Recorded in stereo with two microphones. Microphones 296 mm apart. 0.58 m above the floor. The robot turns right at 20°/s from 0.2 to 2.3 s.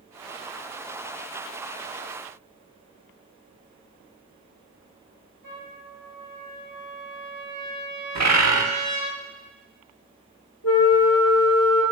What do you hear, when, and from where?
5.4 s a trumpet: 75° left (ahead or behind), 4 m
8.2 s a bird: 60° right (ahead or behind), 1.0 m
10.6 s a flute: 50° left (ahead or behind), 1.4 m